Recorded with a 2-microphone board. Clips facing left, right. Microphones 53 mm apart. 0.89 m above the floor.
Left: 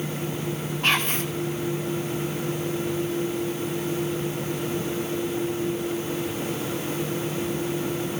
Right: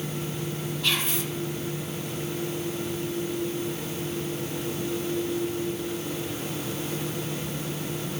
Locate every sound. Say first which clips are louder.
0.8 s whispering: left 5 dB; 45° left (ahead or behind), 1.2 m